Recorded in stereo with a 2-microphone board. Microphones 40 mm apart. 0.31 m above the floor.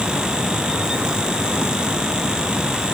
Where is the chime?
I don't hear a chime.